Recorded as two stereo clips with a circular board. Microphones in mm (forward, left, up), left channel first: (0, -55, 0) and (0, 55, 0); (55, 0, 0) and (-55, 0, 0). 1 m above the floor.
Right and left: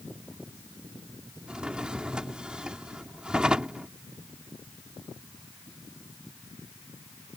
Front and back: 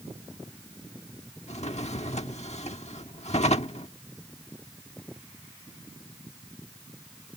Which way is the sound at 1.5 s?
10° left.